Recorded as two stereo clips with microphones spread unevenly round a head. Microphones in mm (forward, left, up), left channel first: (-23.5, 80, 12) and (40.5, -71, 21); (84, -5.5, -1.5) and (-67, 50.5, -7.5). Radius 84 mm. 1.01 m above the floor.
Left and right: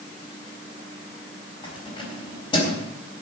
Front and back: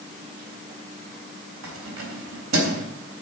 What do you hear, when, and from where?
1.6 s keys jangling: 175° left, 3.5 m